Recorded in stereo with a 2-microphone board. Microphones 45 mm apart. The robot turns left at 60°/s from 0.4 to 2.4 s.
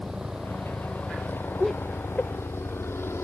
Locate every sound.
0.0 s a helicopter: 10° right (ahead or behind); by 3.2 s 65° left (ahead or behind)
1.6 s laughter: centre (ahead or behind); by 2.3 s 40° left (ahead or behind)